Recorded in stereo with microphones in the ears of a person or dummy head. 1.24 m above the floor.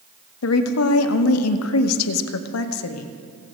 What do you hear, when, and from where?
0.4 s a woman speaking: 85° left, 0.9 m